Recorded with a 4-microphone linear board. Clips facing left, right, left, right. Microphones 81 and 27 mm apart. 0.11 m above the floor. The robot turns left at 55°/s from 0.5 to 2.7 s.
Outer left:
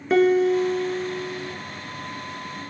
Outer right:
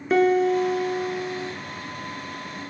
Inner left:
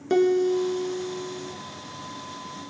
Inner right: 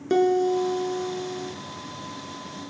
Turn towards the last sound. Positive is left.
turn(degrees=-125)